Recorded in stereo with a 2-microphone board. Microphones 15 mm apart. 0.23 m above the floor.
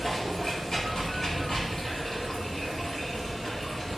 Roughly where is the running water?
Left.